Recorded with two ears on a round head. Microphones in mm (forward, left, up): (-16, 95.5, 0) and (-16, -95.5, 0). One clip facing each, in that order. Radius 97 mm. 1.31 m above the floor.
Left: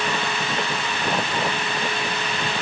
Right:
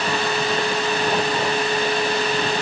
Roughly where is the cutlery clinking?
No cutlery clinking in this recording.